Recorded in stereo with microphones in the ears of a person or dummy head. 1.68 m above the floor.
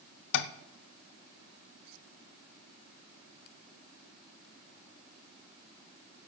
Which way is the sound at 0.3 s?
70° left (ahead or behind).